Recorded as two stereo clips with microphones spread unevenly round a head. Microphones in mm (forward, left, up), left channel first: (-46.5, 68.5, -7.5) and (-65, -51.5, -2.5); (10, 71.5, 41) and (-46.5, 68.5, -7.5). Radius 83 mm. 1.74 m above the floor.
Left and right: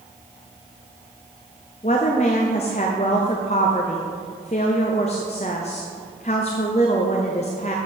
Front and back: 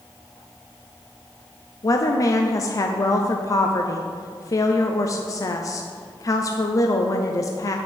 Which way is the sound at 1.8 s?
25° left.